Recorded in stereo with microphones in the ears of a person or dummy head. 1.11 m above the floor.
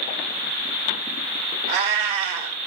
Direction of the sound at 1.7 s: 35° right (ahead or behind).